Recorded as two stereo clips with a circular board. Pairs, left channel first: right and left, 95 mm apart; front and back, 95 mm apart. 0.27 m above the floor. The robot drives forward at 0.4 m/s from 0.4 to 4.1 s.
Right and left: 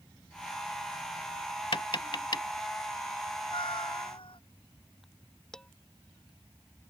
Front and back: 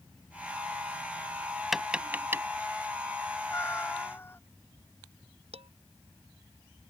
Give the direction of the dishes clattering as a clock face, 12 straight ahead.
6 o'clock.